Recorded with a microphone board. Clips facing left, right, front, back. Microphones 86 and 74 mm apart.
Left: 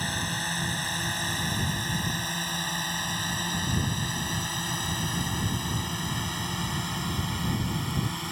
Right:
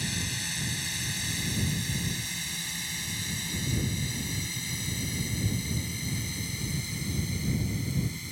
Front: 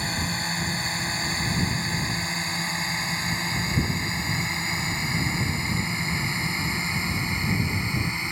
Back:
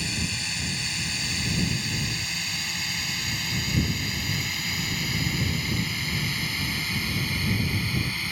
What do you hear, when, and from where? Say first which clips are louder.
0.0 s a drone: left 5 dB, front 4 dB; 50° left; by 8.3 s 70° left